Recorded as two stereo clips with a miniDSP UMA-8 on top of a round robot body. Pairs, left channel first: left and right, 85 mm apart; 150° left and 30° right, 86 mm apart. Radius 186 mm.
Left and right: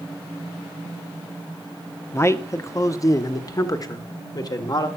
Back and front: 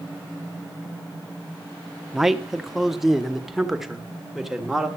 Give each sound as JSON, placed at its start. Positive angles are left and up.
{"t": 2.1, "sound": "a man speaking", "azimuth_deg": 55, "distance_m": 1.5}